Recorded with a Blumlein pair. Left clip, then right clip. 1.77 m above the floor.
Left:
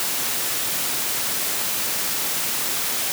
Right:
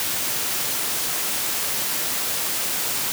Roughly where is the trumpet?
No trumpet in this recording.